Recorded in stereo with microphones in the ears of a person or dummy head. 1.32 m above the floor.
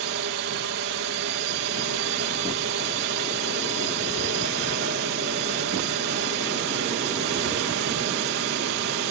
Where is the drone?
50° right (ahead or behind).